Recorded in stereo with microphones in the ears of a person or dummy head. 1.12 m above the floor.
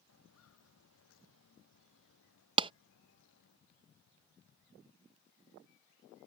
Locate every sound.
0.1 s footsteps: 80° left
2.6 s a clap: 20° right (ahead or behind)